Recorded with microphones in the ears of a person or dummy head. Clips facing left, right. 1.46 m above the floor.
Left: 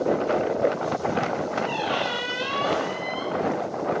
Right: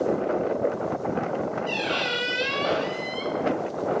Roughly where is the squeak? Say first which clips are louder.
Left 1 dB; right.